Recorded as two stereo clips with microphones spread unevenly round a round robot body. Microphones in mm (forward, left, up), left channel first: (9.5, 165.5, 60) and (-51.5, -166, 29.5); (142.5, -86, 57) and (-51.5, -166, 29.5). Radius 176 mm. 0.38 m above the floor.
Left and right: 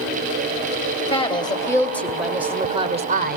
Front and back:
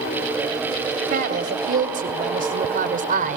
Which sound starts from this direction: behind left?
A woman speaking, at 1.1 s.